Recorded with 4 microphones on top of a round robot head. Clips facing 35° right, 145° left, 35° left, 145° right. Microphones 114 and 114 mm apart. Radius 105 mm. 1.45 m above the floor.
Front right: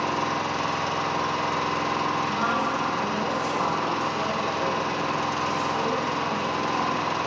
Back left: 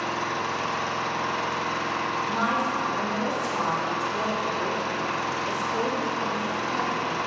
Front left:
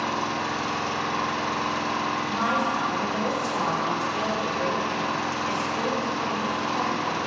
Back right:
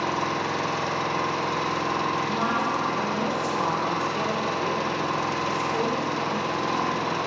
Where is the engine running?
105° right, 1.0 m.